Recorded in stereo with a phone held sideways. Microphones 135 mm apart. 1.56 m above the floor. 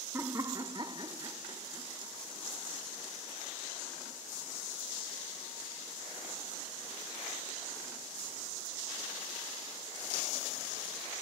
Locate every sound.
0.1 s laughter: 20° right (ahead or behind), 0.6 m; by 2.1 s 25° right (ahead or behind), 1.3 m